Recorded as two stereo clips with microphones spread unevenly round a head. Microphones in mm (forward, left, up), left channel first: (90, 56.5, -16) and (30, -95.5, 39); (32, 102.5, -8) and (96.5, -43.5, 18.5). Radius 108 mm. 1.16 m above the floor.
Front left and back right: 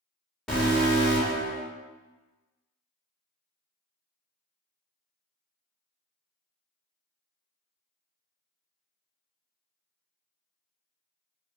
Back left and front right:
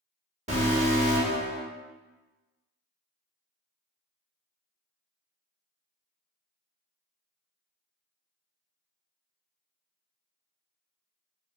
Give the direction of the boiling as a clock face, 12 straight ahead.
I don't hear boiling.